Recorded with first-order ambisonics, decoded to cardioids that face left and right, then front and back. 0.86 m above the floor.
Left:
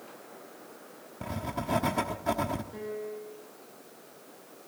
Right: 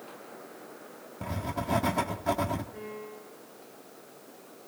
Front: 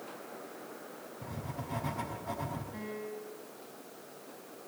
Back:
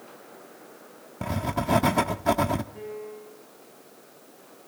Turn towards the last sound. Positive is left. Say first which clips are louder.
# left 4 dB, back 3 dB
turn(degrees=55)